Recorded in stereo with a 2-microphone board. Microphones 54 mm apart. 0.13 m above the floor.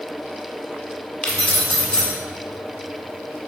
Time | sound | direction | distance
1.2 | keys jangling | 20° left (ahead or behind) | 1.1 m